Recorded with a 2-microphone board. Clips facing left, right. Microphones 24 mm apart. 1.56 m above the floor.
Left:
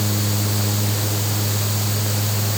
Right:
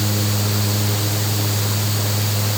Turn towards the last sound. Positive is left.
No sound to turn to.